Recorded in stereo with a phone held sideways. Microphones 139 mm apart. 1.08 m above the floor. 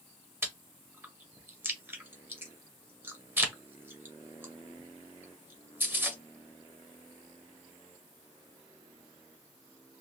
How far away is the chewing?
About 0.8 m.